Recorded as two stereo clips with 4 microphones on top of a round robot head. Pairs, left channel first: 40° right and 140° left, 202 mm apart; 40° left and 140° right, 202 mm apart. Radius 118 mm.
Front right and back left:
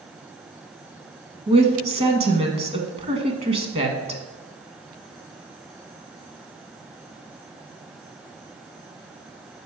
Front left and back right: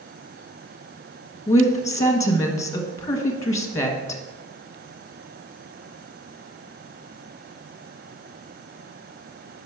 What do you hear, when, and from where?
1.5 s a woman speaking: 105° left, 1.2 m